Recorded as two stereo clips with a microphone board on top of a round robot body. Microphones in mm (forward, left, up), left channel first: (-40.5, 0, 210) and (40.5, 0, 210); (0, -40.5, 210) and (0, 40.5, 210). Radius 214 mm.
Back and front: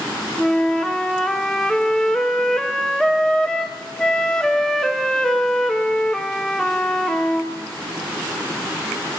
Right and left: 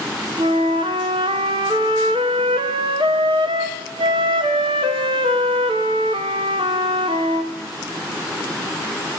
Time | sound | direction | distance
0.4 | a flute | 100° left | 1.3 m